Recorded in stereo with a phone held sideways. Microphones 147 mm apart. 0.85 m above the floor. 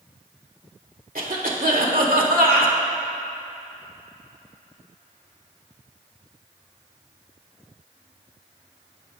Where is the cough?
75° right (ahead or behind), 2 m.